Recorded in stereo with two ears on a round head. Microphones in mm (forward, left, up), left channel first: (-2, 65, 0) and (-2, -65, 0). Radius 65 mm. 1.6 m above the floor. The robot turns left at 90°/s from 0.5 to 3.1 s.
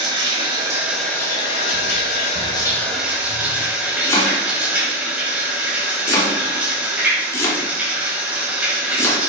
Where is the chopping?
20° left (ahead or behind), 2.5 m.